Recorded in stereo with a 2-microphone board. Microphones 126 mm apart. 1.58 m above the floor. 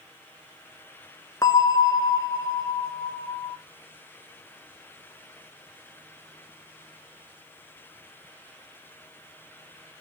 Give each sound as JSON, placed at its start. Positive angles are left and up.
{"t": 1.4, "sound": "a bell", "side_deg": 30, "distance_m": 0.8}